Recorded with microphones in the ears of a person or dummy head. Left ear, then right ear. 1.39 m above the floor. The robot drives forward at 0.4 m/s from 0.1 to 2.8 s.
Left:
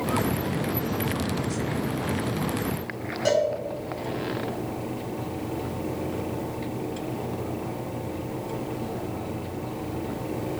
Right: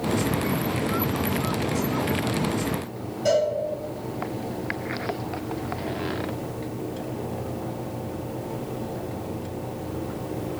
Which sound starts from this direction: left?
A cowbell, at 3.2 s.